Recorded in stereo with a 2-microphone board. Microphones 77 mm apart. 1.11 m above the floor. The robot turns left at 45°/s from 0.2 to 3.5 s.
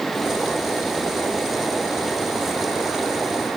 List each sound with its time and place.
Only background noise.